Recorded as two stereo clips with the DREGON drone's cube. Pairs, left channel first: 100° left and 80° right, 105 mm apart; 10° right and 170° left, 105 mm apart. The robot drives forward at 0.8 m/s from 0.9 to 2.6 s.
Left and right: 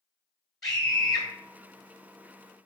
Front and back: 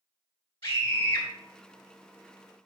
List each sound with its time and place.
0.6 s a scream: 15° left, 1.7 m